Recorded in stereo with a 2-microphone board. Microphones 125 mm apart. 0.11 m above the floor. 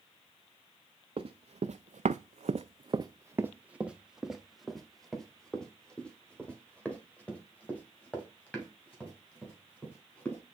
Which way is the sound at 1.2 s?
50° right (ahead or behind).